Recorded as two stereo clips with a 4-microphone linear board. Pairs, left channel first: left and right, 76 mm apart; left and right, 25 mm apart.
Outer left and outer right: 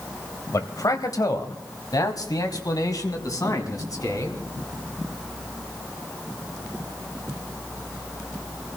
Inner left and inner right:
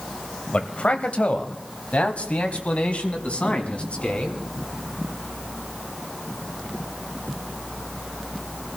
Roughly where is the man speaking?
Left.